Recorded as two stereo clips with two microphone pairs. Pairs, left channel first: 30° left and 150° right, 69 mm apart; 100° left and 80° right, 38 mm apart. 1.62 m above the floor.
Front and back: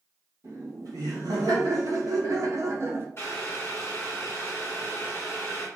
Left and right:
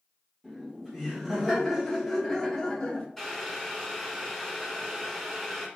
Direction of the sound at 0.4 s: 160° right.